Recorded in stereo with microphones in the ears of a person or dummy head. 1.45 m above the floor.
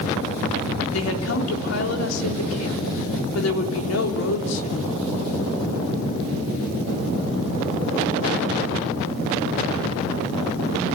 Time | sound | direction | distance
0.9 | a woman speaking | 85° left | 3.5 m